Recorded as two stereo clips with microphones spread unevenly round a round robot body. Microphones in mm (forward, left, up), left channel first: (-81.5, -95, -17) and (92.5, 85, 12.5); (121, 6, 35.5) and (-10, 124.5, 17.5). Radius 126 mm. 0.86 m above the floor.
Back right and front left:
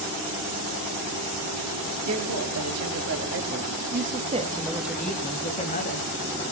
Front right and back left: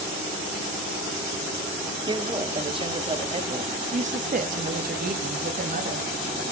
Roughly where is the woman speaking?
Left.